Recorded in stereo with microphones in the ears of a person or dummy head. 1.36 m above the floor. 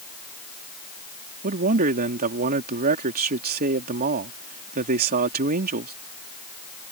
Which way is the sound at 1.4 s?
45° right (ahead or behind).